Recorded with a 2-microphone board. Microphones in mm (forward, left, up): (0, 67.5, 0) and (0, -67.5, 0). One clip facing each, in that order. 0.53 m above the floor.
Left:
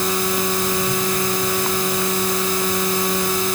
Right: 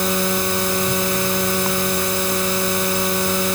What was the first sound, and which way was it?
Only background noise.